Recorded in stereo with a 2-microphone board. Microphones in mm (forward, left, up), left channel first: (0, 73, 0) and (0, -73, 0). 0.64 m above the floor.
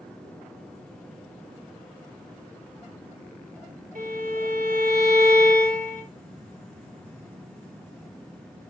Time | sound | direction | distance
4.0 | a violin | 65° right (ahead or behind) | 3 m